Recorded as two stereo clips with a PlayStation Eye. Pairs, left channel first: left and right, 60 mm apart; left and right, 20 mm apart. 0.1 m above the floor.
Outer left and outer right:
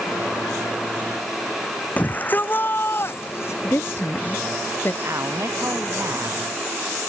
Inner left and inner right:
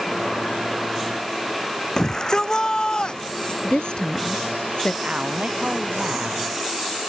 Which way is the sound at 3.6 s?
40° left (ahead or behind).